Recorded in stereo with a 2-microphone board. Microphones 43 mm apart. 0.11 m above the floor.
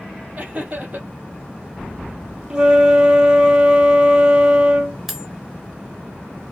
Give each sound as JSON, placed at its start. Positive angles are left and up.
{"t": 0.4, "sound": "laughter", "side_deg": -35, "distance_m": 2.5}
{"t": 2.5, "sound": "a flute", "side_deg": -20, "distance_m": 0.9}
{"t": 5.1, "sound": "cutlery clinking", "side_deg": -10, "distance_m": 0.9}